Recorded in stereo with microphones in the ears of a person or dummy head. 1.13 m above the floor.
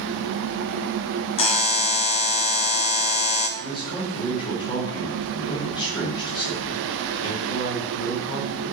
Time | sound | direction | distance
1.4 | a buzzer | 30° left (ahead or behind) | 1.2 m
3.6 | a man speaking | 25° left (ahead or behind) | 3.5 m